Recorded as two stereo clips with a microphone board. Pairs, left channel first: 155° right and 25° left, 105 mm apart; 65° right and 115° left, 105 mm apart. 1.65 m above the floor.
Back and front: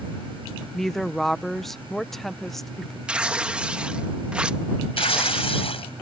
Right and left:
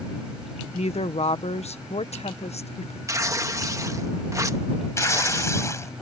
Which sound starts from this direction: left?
Tearing paper, at 3.1 s.